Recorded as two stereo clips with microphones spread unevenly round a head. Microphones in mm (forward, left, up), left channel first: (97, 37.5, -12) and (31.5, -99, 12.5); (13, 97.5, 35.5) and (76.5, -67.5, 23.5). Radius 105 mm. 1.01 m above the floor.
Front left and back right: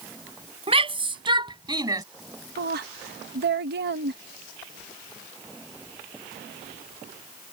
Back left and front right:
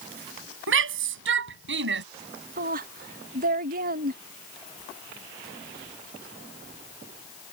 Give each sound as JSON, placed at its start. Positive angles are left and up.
{"t": 0.7, "sound": "a shout", "azimuth_deg": -65}
{"t": 2.6, "sound": "a woman speaking", "azimuth_deg": -110}